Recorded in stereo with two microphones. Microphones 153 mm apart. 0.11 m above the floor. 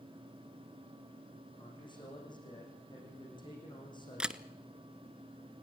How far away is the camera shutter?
About 0.6 m.